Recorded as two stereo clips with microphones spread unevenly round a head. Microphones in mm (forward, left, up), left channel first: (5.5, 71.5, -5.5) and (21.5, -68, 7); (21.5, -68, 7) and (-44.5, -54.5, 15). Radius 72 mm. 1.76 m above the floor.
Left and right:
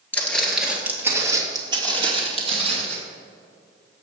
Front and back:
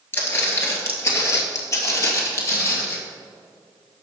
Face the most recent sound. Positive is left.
turn(degrees=-50)